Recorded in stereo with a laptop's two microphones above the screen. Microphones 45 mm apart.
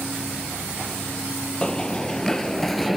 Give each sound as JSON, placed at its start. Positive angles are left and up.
{"t": 1.6, "sound": "running footsteps", "side_deg": 20, "distance_m": 1.4}